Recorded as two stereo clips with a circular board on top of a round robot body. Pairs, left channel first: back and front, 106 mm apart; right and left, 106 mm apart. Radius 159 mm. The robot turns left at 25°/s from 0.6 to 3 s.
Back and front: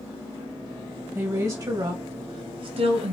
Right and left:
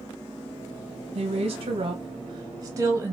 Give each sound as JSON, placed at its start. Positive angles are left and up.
{"t": 1.1, "sound": "a woman speaking", "azimuth_deg": 70, "distance_m": 0.9}